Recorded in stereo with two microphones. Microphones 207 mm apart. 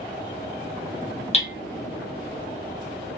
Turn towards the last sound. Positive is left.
turn(degrees=30)  # may be behind; listen again after turning